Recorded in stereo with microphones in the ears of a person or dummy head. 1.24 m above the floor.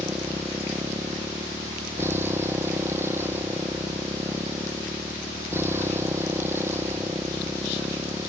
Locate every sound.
0.0 s a motorcycle: 10° right (ahead or behind)